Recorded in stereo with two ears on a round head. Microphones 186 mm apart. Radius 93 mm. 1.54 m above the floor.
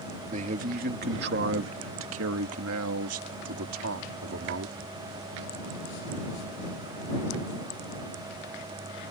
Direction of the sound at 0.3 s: 35° right (ahead or behind).